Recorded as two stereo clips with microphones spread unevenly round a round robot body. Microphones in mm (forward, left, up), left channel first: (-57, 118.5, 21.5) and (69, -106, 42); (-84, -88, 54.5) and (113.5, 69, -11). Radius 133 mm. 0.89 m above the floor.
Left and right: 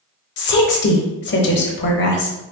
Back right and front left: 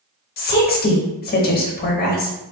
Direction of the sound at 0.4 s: 155° left.